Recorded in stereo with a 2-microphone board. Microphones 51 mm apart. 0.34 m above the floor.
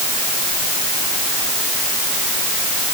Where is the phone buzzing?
I don't hear a phone buzzing.